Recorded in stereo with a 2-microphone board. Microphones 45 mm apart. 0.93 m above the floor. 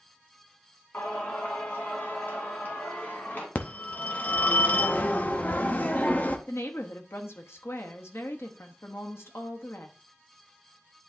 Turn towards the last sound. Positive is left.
turn(degrees=70)  # may be behind; listen again after turning